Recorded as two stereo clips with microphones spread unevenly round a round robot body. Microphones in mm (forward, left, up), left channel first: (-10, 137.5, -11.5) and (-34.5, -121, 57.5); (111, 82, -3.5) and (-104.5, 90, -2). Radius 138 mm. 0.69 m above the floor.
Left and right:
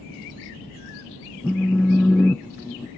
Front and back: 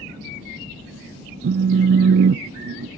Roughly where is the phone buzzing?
Behind.